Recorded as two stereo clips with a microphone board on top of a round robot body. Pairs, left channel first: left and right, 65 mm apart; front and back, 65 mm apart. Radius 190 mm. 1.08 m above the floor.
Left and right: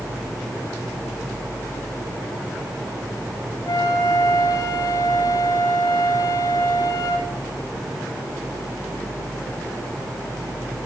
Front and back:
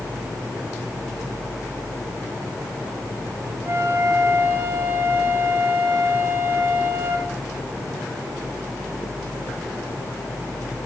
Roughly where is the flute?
Behind left.